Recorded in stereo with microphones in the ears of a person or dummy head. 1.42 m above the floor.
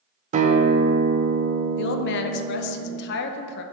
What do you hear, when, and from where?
0.3 s a guitar: 30° right (ahead or behind), 0.6 m
1.8 s a woman speaking: 60° left (ahead or behind), 0.6 m